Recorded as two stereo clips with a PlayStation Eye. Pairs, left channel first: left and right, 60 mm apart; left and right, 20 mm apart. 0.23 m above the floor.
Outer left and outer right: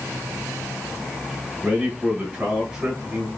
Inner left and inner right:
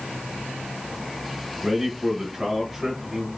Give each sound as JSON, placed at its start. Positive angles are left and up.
{"t": 1.6, "sound": "a man speaking", "side_deg": -15, "distance_m": 1.3}